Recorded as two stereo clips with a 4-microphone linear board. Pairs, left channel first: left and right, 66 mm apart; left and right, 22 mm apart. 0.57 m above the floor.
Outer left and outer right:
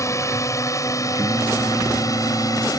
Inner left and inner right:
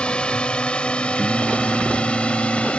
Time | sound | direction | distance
0.0 | a drone | 50° left (ahead or behind) | ?
1.2 | singing | 50° right (ahead or behind) | ?